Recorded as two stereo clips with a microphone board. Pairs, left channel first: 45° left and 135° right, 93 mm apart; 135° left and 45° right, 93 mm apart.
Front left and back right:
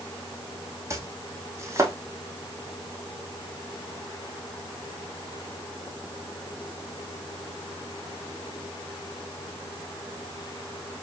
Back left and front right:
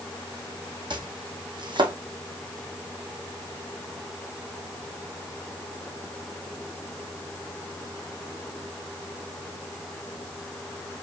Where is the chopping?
75° right, 1.1 m.